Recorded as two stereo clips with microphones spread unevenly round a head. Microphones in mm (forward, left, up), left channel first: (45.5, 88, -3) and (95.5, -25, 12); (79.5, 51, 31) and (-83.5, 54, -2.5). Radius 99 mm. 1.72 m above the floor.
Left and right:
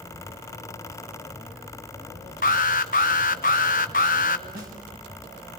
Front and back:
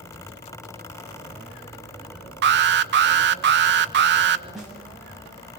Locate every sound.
2.4 s an alarm: 165° left, 1.2 m
4.5 s a snare drum: 90° right, 7.5 m